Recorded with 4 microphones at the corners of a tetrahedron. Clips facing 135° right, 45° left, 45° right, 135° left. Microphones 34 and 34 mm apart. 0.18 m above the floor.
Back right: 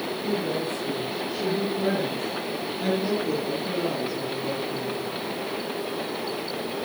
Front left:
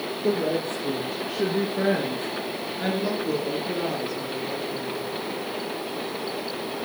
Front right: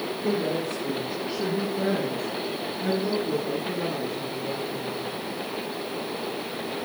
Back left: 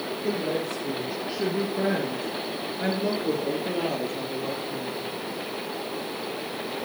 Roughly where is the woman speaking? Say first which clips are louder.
Front left 4 dB, front right 1 dB; ahead left.